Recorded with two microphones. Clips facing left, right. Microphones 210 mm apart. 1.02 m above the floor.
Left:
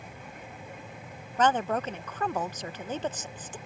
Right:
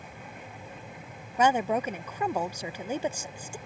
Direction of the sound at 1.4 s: 10° right (ahead or behind).